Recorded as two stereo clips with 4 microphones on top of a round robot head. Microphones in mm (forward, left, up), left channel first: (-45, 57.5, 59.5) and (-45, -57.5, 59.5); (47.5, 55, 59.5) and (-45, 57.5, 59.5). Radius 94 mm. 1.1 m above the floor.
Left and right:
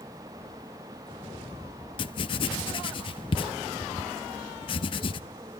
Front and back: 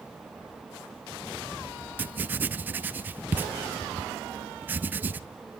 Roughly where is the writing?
Behind left.